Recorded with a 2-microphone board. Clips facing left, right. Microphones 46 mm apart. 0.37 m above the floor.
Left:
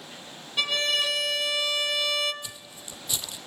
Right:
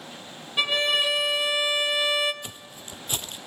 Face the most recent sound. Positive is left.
turn(degrees=-45)  # may be behind; listen again after turning